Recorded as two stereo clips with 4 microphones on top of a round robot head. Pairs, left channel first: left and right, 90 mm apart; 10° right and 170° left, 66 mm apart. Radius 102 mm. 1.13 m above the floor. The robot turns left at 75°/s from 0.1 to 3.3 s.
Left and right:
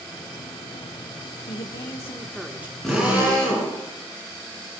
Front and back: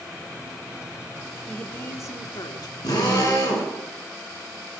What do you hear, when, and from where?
1.5 s a woman speaking: 70° left, 1.3 m; by 2.7 s 25° right, 1.3 m
2.8 s a drill: 5° left, 7 m; by 3.7 s 30° right, 7 m